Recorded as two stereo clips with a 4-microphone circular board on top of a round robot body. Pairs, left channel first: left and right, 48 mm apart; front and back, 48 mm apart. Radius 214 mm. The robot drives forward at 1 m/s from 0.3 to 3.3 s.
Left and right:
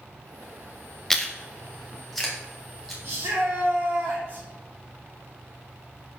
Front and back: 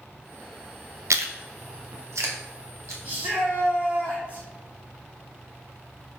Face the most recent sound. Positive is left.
turn(degrees=-130)